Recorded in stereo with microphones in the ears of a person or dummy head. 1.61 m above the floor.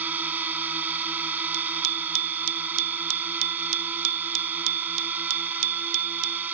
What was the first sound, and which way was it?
A drone, 10° right (ahead or behind).